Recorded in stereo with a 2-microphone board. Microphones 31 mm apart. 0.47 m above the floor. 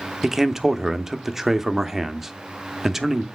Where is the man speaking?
10° right (ahead or behind), 0.7 m.